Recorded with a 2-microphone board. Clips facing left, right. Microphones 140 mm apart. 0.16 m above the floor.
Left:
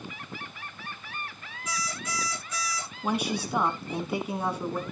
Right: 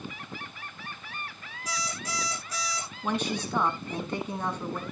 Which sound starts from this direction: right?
An alarm clock, at 1.7 s.